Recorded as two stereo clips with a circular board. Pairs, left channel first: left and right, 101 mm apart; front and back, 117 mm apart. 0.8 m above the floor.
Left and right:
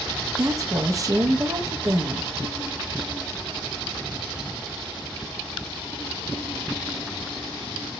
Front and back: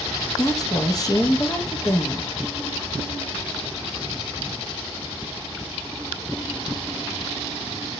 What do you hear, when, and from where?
0.4 s a woman speaking: 45° right, 0.5 m